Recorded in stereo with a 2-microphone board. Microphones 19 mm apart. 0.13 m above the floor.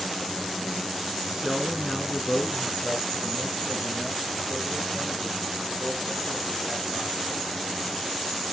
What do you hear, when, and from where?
1.3 s a man speaking: 30° right (ahead or behind), 1.3 m; by 7.2 s 60° left (ahead or behind), 5 m